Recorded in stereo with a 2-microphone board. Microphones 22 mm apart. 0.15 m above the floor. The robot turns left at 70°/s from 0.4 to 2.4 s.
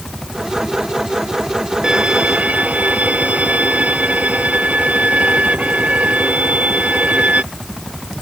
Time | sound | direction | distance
1.8 | a violin | 35° right | ?